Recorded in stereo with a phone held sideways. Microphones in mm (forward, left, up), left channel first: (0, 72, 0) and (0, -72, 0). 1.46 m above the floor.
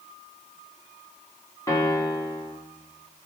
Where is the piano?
25° left (ahead or behind), 2.5 m.